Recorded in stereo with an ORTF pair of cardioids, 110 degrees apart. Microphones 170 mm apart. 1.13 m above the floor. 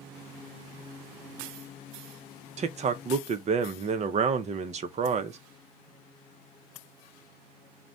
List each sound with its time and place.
2.6 s a man speaking: 40° right, 0.6 m